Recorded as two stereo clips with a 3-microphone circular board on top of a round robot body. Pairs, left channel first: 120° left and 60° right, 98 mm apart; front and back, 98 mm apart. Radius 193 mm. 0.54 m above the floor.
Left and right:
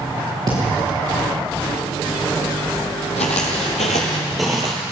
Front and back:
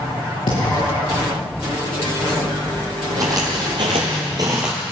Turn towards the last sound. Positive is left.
turn(degrees=-95)